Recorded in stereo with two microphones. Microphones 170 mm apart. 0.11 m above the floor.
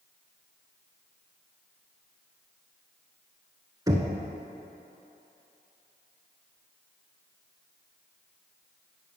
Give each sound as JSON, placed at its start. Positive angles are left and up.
{"t": 3.9, "sound": "knocking", "side_deg": -20, "distance_m": 0.9}